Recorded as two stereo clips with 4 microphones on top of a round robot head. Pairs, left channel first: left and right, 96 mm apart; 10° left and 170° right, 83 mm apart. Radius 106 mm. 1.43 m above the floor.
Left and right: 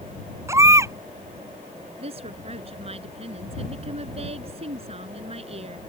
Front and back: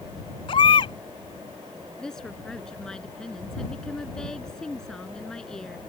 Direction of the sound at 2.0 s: 75° right.